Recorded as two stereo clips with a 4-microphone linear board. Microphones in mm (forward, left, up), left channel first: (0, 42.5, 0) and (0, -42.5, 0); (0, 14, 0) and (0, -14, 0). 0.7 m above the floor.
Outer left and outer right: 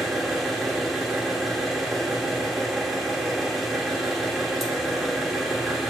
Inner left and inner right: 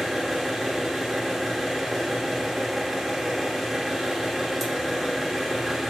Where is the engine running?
Centre (ahead or behind), 0.9 m.